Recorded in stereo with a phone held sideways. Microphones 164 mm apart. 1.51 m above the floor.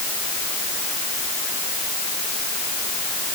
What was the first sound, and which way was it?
Only background noise.